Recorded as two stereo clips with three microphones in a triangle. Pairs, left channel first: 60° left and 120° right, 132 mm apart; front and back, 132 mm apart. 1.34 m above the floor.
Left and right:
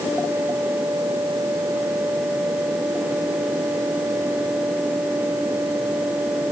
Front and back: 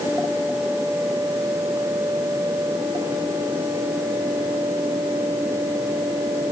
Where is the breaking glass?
No breaking glass in this recording.